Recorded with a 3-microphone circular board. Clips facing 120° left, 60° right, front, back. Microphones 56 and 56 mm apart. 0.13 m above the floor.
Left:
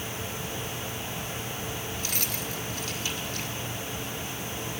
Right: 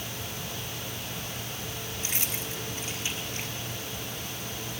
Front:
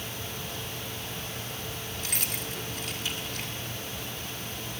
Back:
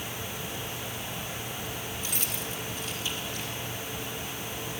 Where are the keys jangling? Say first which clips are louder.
Left 1 dB, even; 5° left, 1.7 m.